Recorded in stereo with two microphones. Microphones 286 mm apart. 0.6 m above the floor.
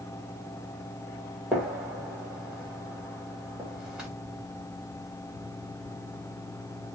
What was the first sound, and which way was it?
A gunshot, 5° right (ahead or behind).